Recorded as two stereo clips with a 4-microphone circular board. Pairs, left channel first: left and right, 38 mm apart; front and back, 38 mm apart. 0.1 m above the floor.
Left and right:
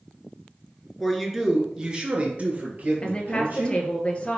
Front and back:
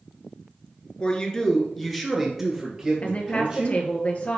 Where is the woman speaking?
35° left, 1.7 m.